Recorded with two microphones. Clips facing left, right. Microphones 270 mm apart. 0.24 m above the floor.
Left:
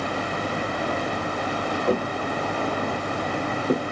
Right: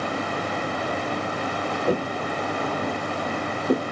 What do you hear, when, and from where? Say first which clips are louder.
1.9 s footsteps: even; 10° right (ahead or behind), 1.9 m; by 3.8 s 10° left (ahead or behind), 3 m